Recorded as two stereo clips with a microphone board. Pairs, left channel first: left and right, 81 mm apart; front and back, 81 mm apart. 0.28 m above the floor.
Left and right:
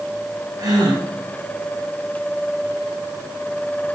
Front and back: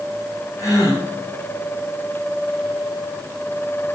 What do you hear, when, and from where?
0.6 s a gasp: 55° right, 8 m